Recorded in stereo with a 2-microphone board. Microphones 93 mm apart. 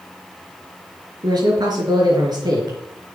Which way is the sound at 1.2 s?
50° right (ahead or behind).